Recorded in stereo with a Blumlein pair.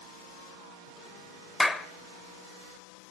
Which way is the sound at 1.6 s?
10° left.